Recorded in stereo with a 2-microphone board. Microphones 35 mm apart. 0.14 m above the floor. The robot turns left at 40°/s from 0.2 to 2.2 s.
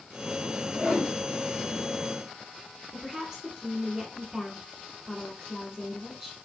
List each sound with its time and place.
0.7 s a whoosh: 25° right (ahead or behind), 2.5 m; by 1.1 s 10° right (ahead or behind), 2.5 m
2.9 s a woman speaking: 20° right (ahead or behind), 1.6 m